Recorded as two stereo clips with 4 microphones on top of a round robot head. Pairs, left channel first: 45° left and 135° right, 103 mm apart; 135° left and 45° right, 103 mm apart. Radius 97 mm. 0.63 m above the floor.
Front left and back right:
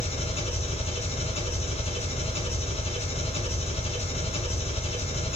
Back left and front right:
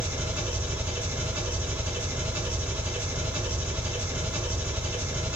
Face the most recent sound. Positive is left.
turn(degrees=30)